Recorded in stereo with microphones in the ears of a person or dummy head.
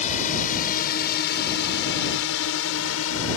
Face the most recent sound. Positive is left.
turn(degrees=85)